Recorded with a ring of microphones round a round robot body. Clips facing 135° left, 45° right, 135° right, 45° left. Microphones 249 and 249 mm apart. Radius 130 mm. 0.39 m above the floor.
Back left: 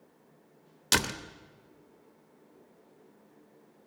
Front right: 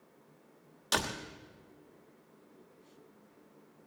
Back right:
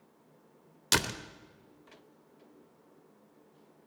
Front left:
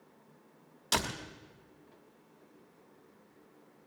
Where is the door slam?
Straight behind, 0.9 m.